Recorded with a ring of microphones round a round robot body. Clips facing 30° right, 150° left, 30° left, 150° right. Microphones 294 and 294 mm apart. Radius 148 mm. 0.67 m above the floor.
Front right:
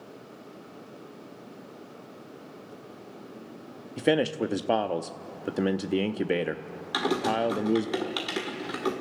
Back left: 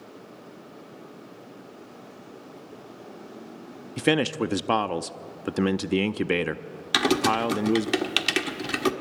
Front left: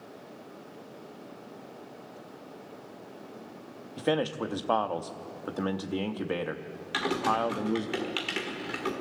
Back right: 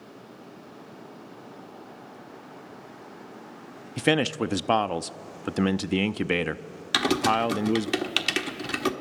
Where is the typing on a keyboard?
170° right, 1.3 m.